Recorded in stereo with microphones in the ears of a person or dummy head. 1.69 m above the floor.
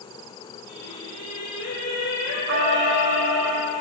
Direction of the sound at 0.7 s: 65° left (ahead or behind).